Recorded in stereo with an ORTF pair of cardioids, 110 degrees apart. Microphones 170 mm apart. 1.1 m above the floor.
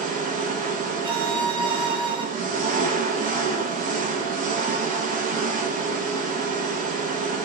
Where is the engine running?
50° right, 1.0 m.